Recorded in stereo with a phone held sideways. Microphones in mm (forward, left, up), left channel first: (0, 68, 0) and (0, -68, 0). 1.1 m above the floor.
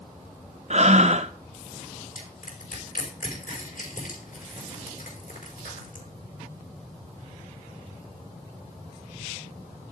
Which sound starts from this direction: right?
Breathing, at 0.7 s.